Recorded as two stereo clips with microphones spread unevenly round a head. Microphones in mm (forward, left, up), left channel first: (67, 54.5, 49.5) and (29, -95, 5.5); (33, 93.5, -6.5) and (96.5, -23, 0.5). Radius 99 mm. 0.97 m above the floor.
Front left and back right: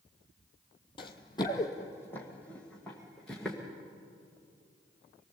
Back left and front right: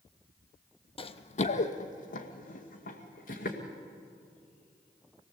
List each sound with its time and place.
1.0 s running footsteps: 90° left, 1.2 m; by 3.6 s 160° left, 3.5 m